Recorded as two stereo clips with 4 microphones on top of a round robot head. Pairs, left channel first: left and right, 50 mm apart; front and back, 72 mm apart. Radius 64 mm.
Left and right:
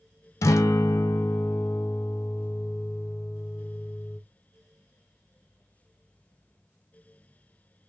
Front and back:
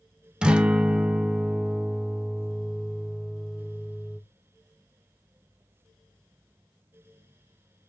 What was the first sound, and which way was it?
A guitar, 105° left.